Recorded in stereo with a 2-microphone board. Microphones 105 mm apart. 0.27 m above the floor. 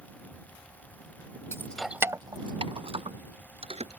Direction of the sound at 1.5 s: 25° left (ahead or behind).